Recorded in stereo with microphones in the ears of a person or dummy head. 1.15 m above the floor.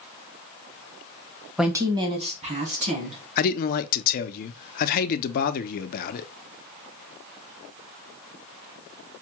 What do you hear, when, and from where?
1.6 s a woman speaking: centre (ahead or behind), 0.6 m; by 3.2 s 40° right (ahead or behind), 2.0 m
3.4 s a man speaking: 45° left (ahead or behind), 0.5 m